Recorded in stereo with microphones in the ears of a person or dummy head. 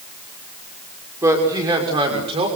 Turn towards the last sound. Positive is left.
turn(degrees=-35)  # may be behind; listen again after turning